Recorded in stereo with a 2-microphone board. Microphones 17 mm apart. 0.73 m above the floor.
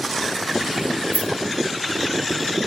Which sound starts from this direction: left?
Keys jangling, at 1.1 s.